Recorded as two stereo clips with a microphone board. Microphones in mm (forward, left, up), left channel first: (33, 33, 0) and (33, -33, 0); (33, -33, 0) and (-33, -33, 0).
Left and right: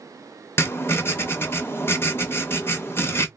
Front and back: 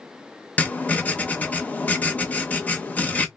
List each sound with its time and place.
0.6 s writing: 50° left, 0.5 m